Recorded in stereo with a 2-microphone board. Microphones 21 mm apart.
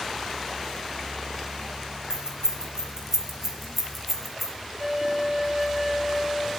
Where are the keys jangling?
40° right (ahead or behind), 1.9 m; by 4.5 s centre (ahead or behind), 2.0 m.